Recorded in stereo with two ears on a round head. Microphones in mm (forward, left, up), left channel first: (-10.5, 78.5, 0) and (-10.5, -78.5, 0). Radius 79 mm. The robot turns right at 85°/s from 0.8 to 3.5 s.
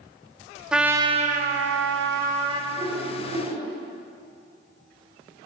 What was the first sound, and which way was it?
A trumpet, 175° right.